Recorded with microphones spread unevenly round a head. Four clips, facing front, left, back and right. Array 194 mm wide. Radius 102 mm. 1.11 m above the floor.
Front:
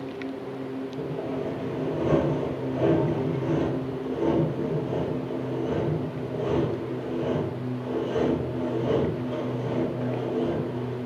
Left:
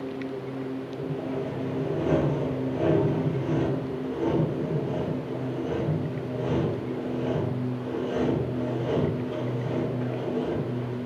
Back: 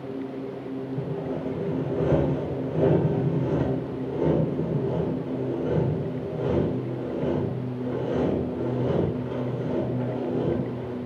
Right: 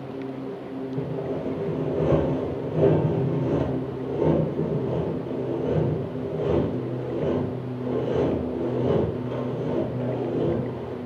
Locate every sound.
1.0 s sawing: 105° right, 2 m